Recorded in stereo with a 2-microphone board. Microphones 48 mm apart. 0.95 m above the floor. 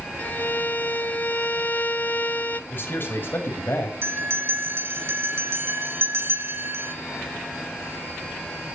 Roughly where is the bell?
Right.